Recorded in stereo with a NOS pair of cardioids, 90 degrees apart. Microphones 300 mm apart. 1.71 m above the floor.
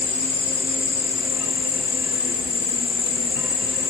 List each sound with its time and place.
0.0 s an insect: 30° left, 1.5 m